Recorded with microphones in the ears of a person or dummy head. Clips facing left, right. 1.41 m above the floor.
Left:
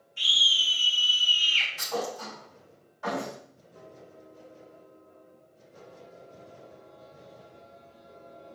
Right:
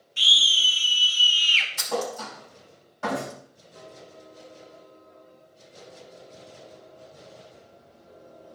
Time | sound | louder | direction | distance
0.2 | a scream | right 4 dB | 85° right | 3 m
1.8 | a thud | right 3 dB | 75° right (ahead or behind) | 4.5 m